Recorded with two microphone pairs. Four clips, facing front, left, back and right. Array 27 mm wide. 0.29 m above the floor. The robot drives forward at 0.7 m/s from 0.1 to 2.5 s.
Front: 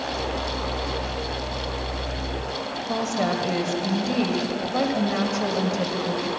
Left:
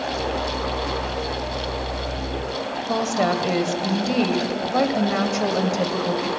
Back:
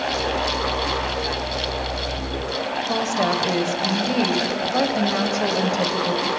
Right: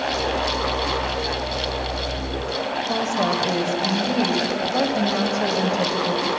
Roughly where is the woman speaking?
Left.